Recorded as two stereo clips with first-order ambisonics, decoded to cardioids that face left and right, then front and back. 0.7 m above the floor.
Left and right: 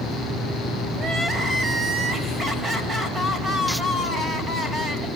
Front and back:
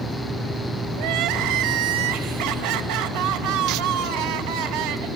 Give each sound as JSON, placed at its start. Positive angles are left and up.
{"t": 1.0, "sound": "crying", "azimuth_deg": -170, "distance_m": 1.5}